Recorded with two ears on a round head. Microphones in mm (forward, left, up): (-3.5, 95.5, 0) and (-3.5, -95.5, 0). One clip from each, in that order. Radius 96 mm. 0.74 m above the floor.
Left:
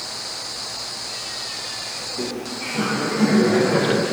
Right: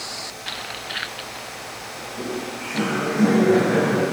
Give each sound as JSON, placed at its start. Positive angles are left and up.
{"t": 2.0, "sound": "laughter", "side_deg": -5, "distance_m": 5.5}